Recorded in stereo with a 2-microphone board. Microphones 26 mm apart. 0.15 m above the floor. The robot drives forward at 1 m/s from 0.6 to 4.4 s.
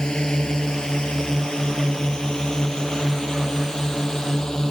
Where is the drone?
30° left (ahead or behind); by 4.7 s 25° left (ahead or behind).